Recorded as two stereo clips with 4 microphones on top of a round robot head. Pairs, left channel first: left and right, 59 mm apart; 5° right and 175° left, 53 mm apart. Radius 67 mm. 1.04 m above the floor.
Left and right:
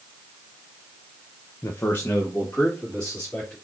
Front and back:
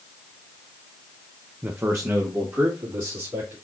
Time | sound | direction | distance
1.6 | a man speaking | 125° left | 0.7 m